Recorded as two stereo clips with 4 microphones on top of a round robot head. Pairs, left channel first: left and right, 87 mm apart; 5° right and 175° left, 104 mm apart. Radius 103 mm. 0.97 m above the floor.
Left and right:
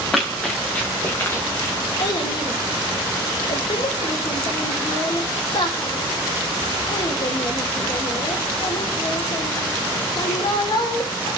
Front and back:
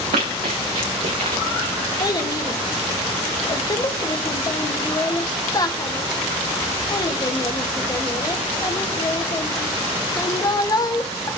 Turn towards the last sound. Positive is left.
turn(degrees=50)